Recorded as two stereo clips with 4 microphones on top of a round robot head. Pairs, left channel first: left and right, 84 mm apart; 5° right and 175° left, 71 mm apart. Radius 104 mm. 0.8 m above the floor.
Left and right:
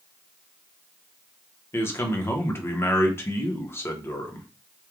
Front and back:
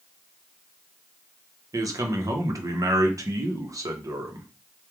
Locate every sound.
1.7 s a man speaking: 150° left, 0.9 m